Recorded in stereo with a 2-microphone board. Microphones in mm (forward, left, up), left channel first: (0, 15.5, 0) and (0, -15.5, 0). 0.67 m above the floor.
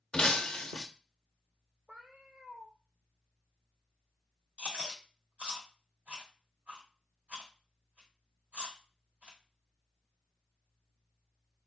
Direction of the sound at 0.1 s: 25° left (ahead or behind).